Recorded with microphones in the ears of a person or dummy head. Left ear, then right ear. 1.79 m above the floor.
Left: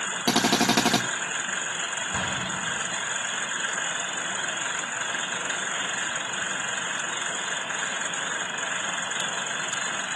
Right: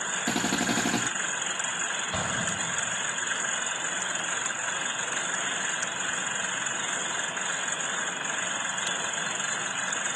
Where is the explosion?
65° right (ahead or behind), 8.5 m.